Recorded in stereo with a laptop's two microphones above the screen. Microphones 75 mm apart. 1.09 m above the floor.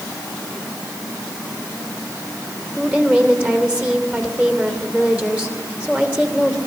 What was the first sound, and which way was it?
A woman speaking, 20° right (ahead or behind).